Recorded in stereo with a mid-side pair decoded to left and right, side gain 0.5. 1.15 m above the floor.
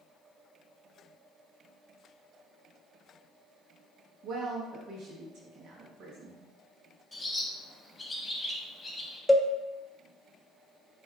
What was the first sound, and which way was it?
A woman speaking, 70° right.